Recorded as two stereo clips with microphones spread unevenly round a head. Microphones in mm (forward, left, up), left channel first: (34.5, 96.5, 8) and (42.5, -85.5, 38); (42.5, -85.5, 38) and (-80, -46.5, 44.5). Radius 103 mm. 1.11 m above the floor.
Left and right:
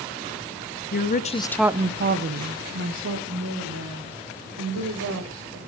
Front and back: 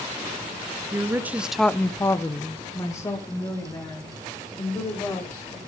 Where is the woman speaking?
90° left, 1.0 m; by 5.6 s 85° right, 4.5 m.